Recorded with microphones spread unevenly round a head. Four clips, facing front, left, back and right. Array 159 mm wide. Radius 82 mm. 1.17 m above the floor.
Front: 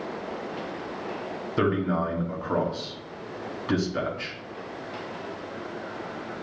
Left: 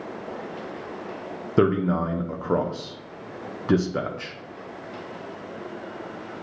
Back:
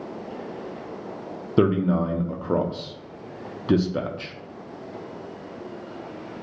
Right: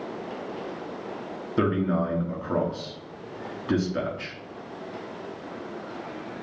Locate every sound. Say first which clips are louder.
1.6 s a man speaking: left 3 dB, back 4 dB; 115° left, 0.5 m